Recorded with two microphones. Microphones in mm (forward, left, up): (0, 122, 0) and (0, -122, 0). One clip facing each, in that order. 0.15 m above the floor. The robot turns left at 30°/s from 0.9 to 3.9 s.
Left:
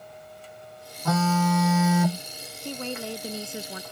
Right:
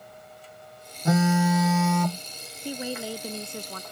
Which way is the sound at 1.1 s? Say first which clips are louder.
Right 2 dB; 160° right.